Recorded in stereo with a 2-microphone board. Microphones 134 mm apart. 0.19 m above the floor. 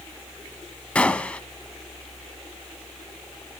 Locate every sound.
0.9 s a gunshot: 10° left (ahead or behind), 0.6 m